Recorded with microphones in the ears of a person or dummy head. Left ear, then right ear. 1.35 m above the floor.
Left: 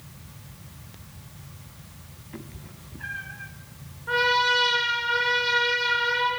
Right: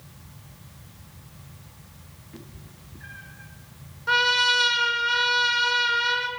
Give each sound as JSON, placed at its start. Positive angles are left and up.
{"t": 2.3, "sound": "a cat meowing", "side_deg": 25, "distance_m": 1.2}
{"t": 4.1, "sound": "a trumpet", "side_deg": -75, "distance_m": 4.5}